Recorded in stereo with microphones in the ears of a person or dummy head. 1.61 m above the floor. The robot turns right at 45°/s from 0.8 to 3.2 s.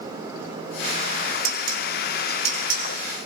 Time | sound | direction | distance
1.4 | dishes clattering | 85° right | 7 m